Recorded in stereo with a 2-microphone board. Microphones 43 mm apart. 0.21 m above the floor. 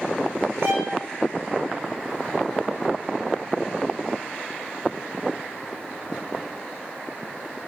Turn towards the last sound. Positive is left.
turn(degrees=-70)  # may be behind; listen again after turning